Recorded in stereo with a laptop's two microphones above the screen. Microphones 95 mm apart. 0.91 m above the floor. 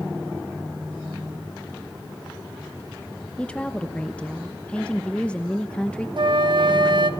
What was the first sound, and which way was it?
A woman speaking, 10° left (ahead or behind).